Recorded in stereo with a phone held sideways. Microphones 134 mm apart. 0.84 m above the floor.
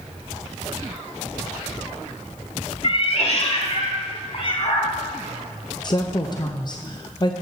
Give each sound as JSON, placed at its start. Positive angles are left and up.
{"t": 2.8, "sound": "a cat meowing", "side_deg": 50, "distance_m": 0.8}
{"t": 5.8, "sound": "a woman speaking", "side_deg": 35, "distance_m": 0.5}